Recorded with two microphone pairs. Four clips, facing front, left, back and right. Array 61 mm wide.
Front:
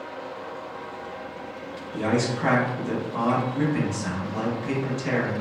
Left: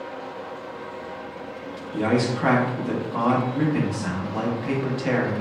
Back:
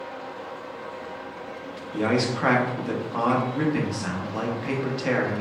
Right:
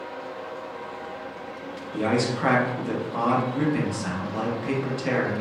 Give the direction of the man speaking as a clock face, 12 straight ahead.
6 o'clock.